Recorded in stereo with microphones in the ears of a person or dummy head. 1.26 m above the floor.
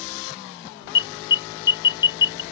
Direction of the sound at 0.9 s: 20° left (ahead or behind).